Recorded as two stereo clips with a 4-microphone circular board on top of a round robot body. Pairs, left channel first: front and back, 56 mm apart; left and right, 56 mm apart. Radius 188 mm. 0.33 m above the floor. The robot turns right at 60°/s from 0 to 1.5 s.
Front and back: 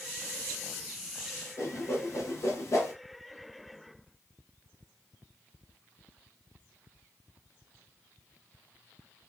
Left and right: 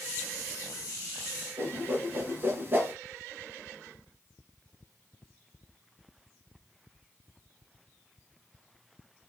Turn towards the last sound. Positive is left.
turn(degrees=-35)